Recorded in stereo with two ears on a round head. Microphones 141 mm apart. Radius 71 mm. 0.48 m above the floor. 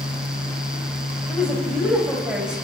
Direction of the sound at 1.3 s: 5° right (ahead or behind).